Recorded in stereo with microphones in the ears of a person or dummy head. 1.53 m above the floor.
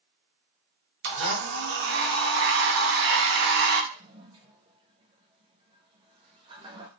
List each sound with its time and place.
1.0 s a blender: 50° right (ahead or behind), 0.7 m
3.9 s a toilet flushing: 20° right (ahead or behind), 0.5 m